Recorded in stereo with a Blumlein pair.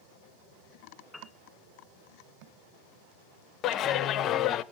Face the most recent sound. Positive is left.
turn(degrees=30)